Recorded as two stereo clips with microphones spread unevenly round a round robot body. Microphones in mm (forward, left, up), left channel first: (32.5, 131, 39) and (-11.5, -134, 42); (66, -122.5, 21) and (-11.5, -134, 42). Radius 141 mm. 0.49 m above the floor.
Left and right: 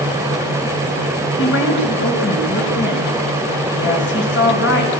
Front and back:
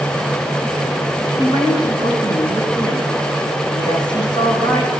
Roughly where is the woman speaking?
Behind left.